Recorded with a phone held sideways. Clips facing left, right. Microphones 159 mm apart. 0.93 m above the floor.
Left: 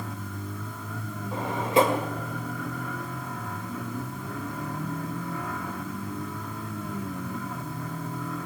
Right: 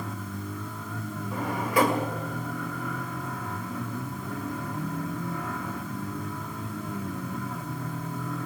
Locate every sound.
1.3 s a drawer: 25° left (ahead or behind), 2.5 m